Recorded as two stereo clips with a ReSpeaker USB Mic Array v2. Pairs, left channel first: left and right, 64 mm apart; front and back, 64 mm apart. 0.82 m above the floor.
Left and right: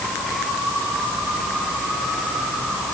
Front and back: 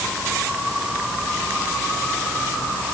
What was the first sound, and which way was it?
Only background noise.